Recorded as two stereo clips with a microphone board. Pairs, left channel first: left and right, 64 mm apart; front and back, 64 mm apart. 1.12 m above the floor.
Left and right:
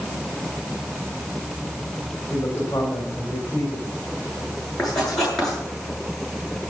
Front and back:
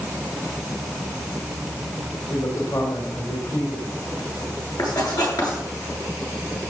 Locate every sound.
2.3 s a man speaking: 25° left, 3.5 m
4.8 s writing: 10° left, 8.5 m